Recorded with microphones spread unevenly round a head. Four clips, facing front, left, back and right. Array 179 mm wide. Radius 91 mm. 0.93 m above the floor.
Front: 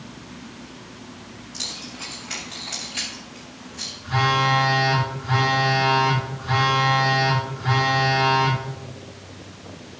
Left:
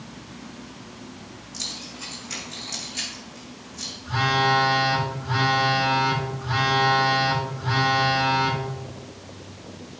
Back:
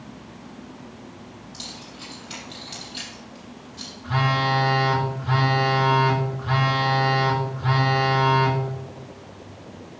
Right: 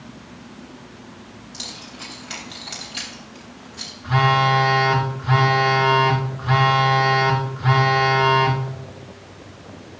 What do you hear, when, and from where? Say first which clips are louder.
1.5 s keys jangling: right 1 dB, front 2 dB; 45° right, 4.5 m; by 3.9 s 50° right, 3 m
4.0 s a phone buzzing: right 4 dB, front 2 dB; 80° right, 1.9 m